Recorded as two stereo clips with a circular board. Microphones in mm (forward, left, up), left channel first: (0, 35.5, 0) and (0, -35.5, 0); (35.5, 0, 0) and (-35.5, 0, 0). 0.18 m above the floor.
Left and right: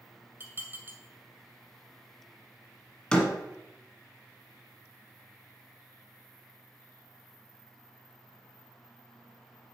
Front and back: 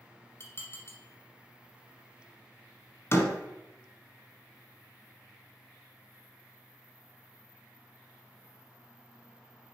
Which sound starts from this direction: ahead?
A door slam, at 3.1 s.